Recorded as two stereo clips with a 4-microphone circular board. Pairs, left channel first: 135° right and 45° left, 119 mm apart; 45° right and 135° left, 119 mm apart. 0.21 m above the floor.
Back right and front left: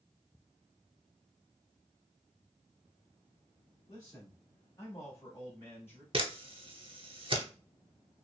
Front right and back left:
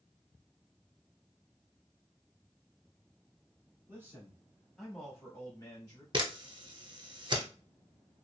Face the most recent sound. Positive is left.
turn(degrees=85)